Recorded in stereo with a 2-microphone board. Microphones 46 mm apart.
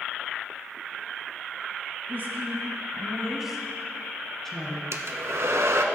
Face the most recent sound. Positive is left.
turn(degrees=-75)  # may be behind; listen again after turning